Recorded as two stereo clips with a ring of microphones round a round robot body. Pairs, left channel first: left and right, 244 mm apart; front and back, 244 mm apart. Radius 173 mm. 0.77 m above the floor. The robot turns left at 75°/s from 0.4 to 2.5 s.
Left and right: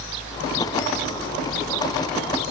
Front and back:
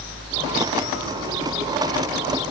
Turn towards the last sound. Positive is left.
No sound to turn to.